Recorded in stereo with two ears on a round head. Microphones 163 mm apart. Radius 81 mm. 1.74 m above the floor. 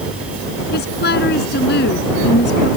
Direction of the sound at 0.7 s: 60° left (ahead or behind).